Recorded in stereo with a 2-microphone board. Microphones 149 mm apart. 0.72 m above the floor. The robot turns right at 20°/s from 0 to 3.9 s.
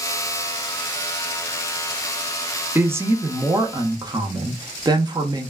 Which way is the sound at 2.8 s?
15° right (ahead or behind).